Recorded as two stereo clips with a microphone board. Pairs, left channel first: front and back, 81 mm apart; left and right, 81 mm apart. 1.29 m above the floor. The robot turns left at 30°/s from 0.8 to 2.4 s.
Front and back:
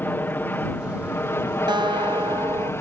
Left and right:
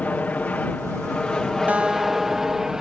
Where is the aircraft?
35° left; by 2.8 s 10° right.